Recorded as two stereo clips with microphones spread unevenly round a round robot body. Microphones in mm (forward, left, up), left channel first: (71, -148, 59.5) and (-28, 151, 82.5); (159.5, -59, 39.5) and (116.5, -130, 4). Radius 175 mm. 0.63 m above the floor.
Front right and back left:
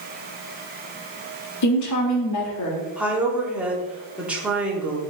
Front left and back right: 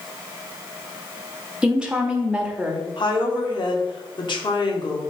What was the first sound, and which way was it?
A woman speaking, 50° right.